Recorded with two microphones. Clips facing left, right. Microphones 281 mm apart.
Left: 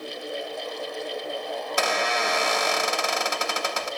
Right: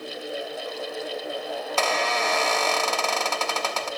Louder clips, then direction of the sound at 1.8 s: Even; 15° left (ahead or behind).